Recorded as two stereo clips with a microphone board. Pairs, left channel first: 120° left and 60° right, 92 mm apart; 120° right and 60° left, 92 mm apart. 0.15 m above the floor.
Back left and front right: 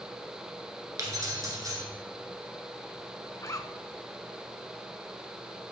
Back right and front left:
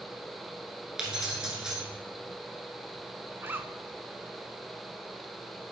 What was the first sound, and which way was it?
Keys jangling, 20° right.